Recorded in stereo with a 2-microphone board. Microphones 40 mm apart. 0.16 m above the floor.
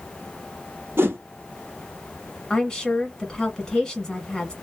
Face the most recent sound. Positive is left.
turn(degrees=20)  # may be behind; listen again after turning